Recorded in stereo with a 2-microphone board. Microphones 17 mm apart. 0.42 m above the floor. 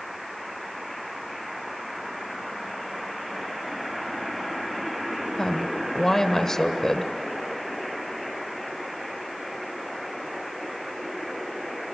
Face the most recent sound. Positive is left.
turn(degrees=25)  # may be behind; listen again after turning